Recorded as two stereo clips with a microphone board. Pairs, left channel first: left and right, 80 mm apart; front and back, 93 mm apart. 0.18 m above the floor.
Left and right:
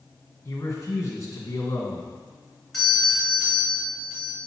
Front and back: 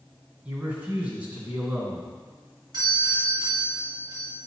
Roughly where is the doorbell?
Behind.